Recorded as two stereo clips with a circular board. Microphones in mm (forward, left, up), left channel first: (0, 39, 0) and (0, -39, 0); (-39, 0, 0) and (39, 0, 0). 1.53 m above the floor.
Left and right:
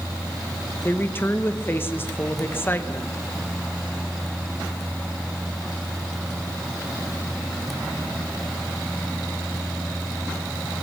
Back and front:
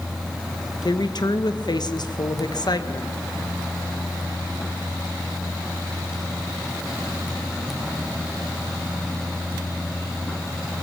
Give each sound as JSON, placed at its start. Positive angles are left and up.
{"t": 0.8, "sound": "a woman speaking", "azimuth_deg": 150, "distance_m": 1.6}